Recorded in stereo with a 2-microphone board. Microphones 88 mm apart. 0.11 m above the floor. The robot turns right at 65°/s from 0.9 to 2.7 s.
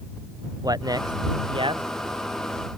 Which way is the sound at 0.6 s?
45° right (ahead or behind).